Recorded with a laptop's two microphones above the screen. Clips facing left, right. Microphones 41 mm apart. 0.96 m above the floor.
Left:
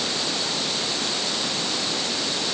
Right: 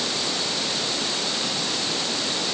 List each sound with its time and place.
Only background noise.